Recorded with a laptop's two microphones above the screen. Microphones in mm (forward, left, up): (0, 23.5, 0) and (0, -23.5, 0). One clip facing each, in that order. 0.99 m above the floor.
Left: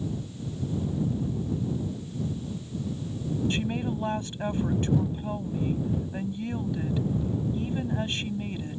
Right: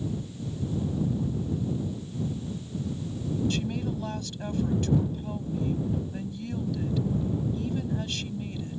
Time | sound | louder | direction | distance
3.5 | a woman speaking | left 1 dB | 25° left (ahead or behind) | ?